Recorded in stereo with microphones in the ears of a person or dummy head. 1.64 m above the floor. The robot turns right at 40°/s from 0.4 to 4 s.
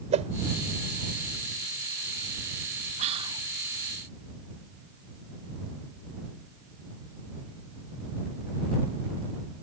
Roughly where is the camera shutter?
No camera shutter in this recording.